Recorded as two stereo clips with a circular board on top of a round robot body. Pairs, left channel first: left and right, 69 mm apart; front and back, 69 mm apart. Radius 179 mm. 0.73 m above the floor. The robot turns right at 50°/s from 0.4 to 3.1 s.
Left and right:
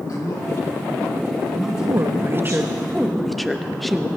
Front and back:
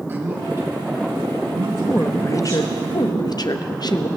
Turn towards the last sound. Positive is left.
turn(degrees=0)